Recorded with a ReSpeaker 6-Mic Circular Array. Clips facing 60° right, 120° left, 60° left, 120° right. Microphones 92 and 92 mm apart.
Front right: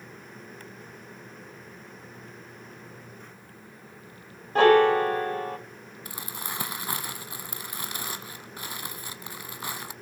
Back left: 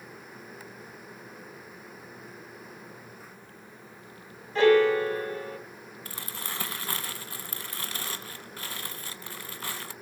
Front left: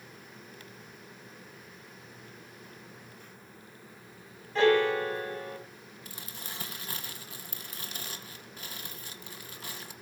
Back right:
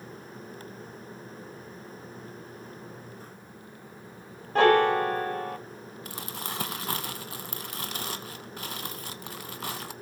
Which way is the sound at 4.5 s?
90° right.